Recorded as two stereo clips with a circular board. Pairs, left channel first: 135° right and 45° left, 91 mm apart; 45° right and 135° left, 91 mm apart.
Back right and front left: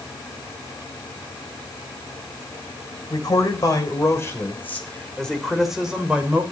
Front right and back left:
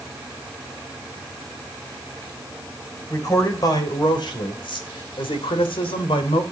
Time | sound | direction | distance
3.1 | a man speaking | 95° right | 4 m